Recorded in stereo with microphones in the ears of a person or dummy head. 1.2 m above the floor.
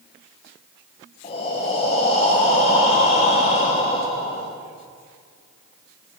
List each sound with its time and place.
1.2 s breathing: 35° left (ahead or behind), 0.7 m